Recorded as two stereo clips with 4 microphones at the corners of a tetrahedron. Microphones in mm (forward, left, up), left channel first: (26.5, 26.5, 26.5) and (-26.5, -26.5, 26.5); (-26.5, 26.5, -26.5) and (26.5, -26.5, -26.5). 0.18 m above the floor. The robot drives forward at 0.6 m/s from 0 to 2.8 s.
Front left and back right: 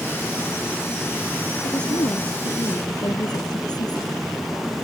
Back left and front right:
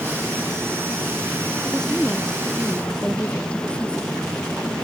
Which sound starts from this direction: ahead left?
A woman speaking, at 1.6 s.